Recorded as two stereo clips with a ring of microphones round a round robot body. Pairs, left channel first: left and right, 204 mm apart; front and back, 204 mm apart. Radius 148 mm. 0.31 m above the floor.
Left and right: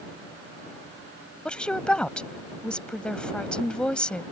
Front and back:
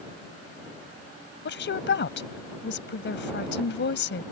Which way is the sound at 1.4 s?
5° left.